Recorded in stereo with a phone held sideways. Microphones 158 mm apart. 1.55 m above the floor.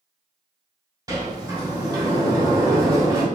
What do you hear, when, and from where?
1.1 s a sliding door: 25° right (ahead or behind), 1.7 m